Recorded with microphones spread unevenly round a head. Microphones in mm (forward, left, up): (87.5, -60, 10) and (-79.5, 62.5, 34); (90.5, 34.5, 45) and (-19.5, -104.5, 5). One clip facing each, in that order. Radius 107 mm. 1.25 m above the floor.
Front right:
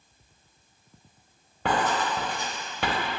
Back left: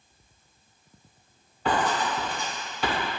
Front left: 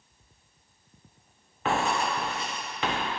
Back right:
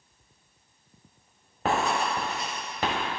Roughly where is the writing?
Right.